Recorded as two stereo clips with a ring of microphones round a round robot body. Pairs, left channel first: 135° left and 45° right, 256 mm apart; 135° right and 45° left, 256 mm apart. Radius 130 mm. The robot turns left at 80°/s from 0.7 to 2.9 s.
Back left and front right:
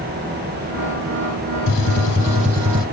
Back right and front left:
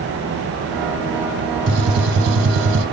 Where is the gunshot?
105° left, 1.4 m; by 2.9 s 10° left, 1.4 m.